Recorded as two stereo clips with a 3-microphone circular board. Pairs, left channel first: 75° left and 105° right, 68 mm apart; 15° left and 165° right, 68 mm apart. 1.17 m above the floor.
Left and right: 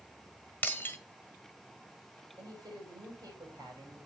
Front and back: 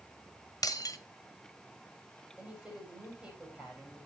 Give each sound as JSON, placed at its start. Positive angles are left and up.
{"t": 0.6, "sound": "breaking glass", "azimuth_deg": 15, "distance_m": 1.6}
{"t": 2.4, "sound": "a woman speaking", "azimuth_deg": -95, "distance_m": 6.0}